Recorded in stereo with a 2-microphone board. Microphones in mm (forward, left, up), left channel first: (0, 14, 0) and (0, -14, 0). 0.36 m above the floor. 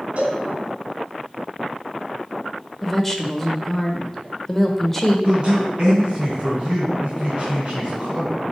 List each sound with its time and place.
0.2 s a cowbell: 55° right (ahead or behind), 2 m
2.8 s a woman speaking: 5° left (ahead or behind), 0.9 m
5.2 s a man speaking: 40° right (ahead or behind), 3.5 m